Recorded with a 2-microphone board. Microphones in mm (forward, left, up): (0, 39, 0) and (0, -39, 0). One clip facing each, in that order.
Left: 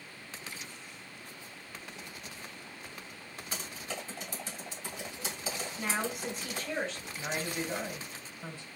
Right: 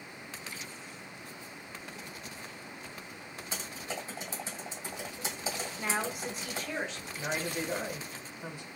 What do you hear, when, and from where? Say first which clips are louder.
3.5 s typing on a keyboard: right 1 dB; 30° right (ahead or behind), 1.7 m
5.8 s a woman speaking: even; 5° right (ahead or behind), 1.1 m
7.2 s a woman speaking: right 1 dB; 15° right (ahead or behind), 1.5 m